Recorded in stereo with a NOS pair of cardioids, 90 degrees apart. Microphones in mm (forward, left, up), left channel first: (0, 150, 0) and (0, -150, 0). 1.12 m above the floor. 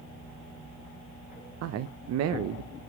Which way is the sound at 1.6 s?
60° right.